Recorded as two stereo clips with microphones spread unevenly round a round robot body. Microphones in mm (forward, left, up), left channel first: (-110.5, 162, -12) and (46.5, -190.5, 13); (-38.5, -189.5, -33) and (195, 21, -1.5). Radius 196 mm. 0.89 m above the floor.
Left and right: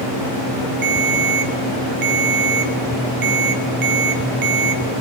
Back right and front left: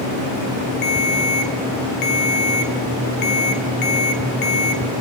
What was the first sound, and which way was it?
A ringtone, 110° right.